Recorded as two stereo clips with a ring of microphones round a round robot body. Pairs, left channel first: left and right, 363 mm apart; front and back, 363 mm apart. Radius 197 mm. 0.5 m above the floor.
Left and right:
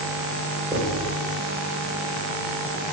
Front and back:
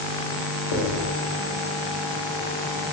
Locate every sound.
0.7 s writing: 15° right, 1.3 m